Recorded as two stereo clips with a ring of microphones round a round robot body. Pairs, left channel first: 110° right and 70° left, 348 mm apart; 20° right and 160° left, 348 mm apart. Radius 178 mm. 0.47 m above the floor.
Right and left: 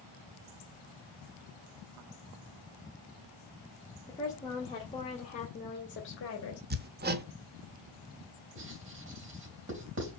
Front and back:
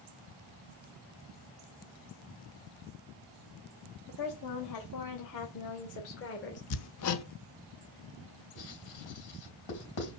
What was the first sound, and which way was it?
A woman speaking, 30° right.